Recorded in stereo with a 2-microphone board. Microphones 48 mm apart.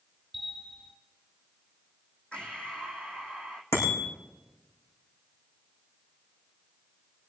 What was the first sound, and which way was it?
A bell, centre (ahead or behind).